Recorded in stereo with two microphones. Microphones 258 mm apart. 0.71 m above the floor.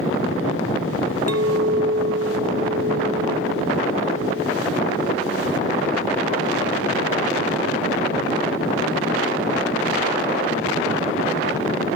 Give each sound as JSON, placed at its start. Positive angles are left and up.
{"t": 1.3, "sound": "a clink", "side_deg": -75, "distance_m": 1.5}